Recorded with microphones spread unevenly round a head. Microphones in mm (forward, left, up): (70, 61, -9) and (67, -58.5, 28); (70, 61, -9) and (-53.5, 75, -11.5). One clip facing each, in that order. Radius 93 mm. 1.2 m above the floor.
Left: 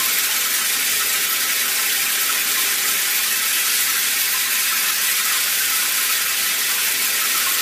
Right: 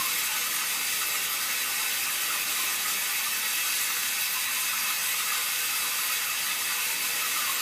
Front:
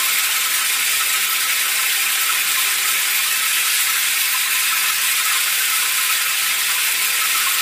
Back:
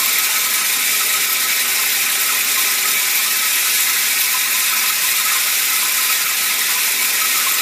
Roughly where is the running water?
Behind left.